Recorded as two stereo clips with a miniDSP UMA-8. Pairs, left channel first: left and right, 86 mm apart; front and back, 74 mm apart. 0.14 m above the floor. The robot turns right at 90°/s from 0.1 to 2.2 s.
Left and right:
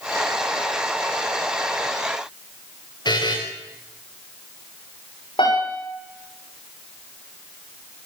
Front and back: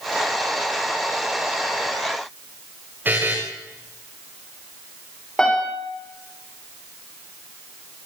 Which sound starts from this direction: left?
A piano, at 5.4 s.